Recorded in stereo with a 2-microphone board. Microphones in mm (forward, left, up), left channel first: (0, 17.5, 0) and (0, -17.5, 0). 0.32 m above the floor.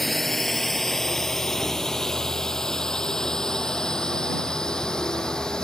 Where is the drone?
Centre (ahead or behind); by 5.6 s 20° left (ahead or behind).